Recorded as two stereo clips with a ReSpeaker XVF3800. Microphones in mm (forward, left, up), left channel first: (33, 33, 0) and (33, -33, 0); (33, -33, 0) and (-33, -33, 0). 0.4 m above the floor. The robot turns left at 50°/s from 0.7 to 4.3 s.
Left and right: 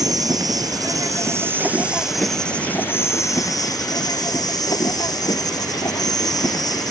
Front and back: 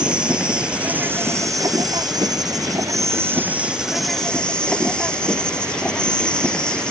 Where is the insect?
105° right; by 6.9 s 75° left.